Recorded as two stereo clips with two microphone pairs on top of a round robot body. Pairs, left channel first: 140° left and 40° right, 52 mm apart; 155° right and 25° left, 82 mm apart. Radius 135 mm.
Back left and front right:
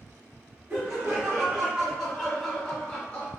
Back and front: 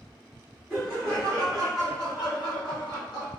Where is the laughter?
80° right, 1.2 m; by 3.3 s 160° right, 1.4 m.